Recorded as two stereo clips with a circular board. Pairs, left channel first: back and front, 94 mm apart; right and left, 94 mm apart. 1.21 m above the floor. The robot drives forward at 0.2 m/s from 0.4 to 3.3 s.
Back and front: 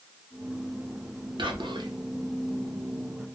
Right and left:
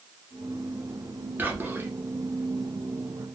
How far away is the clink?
No clink in this recording.